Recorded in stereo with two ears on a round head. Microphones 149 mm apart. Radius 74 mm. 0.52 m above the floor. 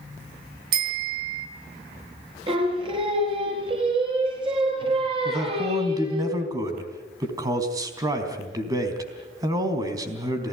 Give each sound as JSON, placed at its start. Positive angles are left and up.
{"t": 0.7, "sound": "a bicycle bell", "side_deg": -70, "distance_m": 3.0}
{"t": 2.5, "sound": "singing", "side_deg": -30, "distance_m": 5.0}
{"t": 5.2, "sound": "a man speaking", "side_deg": -25, "distance_m": 4.0}